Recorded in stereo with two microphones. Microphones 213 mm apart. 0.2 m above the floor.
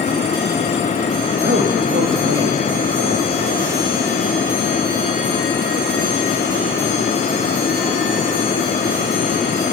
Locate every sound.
1.4 s a man speaking: 55° right (ahead or behind), 6 m